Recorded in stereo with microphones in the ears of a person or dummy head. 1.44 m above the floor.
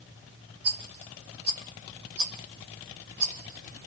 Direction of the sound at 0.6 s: 40° right (ahead or behind).